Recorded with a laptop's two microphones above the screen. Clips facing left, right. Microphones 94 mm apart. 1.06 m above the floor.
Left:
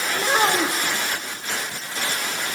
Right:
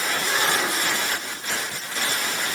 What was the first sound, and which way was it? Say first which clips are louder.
A child speaking: left 6 dB; 60° left (ahead or behind).